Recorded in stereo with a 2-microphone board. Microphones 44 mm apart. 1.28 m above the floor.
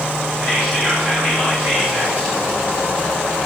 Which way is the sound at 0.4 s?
35° right (ahead or behind).